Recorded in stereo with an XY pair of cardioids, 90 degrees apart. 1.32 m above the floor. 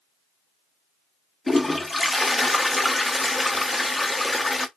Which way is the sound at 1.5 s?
20° left.